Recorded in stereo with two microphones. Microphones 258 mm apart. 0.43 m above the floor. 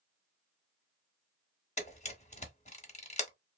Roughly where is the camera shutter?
Left.